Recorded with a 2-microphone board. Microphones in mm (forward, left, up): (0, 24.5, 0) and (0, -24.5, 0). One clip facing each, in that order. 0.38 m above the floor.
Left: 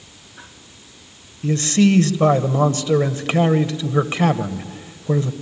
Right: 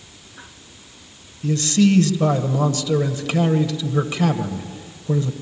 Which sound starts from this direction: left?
A man speaking, at 1.4 s.